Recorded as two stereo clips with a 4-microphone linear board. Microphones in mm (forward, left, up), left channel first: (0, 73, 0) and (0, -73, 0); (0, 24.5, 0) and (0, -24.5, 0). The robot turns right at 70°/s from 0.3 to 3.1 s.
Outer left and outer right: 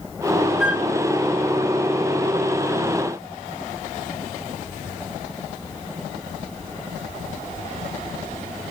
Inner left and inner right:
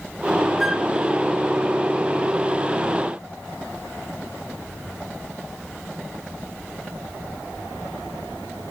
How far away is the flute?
About 1.0 m.